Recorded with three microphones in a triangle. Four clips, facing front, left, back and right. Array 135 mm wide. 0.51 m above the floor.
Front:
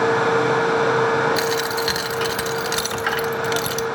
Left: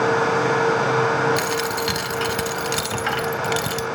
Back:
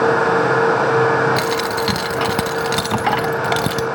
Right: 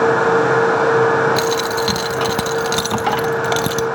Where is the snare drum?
No snare drum in this recording.